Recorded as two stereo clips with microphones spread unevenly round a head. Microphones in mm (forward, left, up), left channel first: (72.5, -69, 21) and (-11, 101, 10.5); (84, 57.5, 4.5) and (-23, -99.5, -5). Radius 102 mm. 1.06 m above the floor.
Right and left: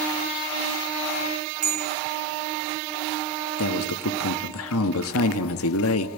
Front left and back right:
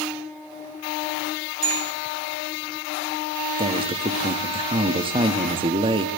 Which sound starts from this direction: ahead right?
A man speaking, at 3.6 s.